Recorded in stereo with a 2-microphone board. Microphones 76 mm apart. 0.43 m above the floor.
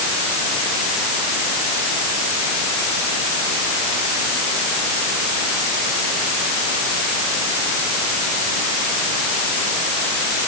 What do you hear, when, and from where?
Only background noise.